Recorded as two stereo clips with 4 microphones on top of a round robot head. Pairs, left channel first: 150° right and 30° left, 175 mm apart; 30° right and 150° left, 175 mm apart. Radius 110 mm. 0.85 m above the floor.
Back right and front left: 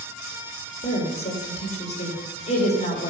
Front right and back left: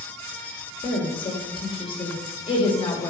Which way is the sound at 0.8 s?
95° right.